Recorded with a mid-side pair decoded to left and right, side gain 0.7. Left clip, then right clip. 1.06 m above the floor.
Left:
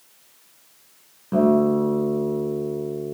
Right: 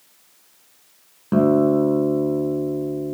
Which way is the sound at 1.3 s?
35° right.